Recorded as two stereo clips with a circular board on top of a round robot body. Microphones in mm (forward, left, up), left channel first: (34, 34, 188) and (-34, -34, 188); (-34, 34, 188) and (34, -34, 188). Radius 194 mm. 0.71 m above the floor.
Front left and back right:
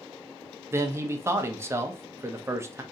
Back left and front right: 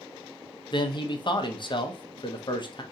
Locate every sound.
0.7 s a man speaking: 165° left, 0.8 m